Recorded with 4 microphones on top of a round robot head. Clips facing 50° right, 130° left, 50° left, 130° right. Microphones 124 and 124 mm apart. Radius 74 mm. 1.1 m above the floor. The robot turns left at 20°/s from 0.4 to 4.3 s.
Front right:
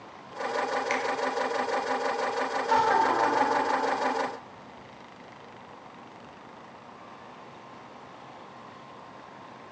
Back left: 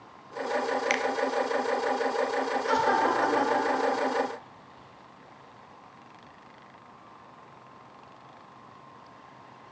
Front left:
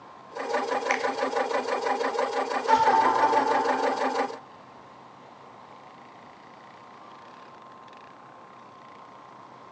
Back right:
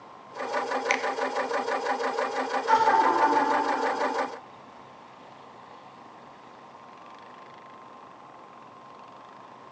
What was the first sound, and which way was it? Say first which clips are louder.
A finger snap: back left 1 dB, front left 1 dB; 160° left.